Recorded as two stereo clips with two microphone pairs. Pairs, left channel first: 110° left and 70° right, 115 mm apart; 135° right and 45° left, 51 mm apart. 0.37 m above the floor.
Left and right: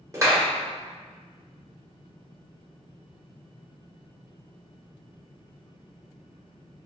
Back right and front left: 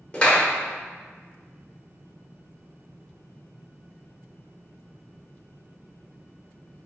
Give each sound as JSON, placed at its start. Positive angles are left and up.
{"t": 0.1, "sound": "a clap", "azimuth_deg": -90, "distance_m": 0.9}